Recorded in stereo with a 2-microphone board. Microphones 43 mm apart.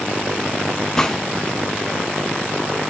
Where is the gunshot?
10° left (ahead or behind), 0.9 m.